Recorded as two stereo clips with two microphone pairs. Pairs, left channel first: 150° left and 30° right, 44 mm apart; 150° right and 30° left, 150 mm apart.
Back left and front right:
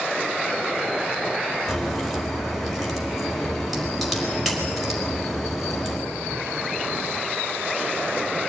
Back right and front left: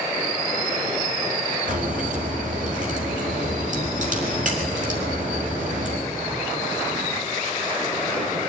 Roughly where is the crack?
Ahead left.